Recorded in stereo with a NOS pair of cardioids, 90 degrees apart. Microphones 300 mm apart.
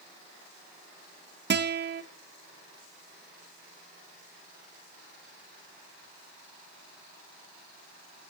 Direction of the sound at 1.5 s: 35° right.